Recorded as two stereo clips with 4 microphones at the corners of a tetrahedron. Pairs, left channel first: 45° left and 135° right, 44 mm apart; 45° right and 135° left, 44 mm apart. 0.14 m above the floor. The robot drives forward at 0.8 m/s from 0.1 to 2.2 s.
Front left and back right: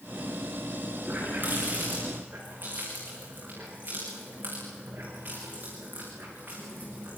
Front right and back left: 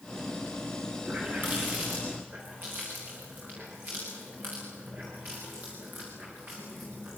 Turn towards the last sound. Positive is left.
turn(degrees=180)